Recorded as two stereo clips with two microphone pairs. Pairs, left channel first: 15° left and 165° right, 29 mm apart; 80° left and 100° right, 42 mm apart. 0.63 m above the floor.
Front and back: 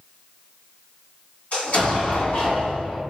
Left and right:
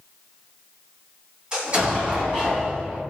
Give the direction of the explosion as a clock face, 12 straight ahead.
1 o'clock.